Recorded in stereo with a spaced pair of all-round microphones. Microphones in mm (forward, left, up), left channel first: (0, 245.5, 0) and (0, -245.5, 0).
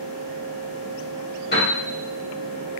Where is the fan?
15° left (ahead or behind), 1.4 m.